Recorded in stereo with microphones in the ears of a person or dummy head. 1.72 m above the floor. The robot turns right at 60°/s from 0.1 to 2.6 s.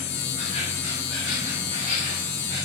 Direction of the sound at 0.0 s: 115° left.